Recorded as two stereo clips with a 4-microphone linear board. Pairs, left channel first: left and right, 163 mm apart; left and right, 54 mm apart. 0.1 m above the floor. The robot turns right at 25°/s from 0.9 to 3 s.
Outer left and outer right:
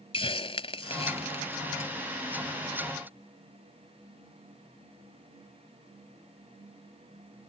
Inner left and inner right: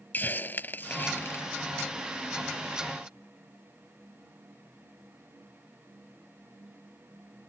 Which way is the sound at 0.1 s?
35° left (ahead or behind).